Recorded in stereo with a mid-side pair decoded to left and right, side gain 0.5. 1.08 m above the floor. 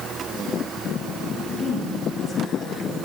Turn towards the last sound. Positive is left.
turn(degrees=35)